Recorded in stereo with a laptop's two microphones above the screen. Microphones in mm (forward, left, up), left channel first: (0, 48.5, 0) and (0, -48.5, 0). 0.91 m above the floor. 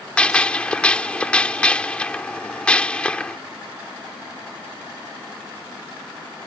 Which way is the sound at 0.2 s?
10° left (ahead or behind).